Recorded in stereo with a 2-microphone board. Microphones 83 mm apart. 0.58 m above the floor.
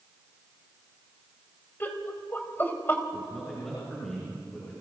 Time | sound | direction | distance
1.8 | laughter | 25° left (ahead or behind) | 3.5 m
3.1 | a man speaking | 5° left (ahead or behind) | 8.5 m